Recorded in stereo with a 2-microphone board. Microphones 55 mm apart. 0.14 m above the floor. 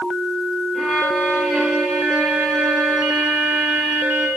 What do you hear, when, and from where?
0.7 s a violin: 10° right (ahead or behind), 3.5 m